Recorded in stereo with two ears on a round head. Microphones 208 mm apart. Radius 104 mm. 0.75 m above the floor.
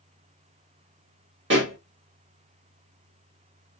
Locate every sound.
1.5 s a pop: 55° right (ahead or behind), 1.9 m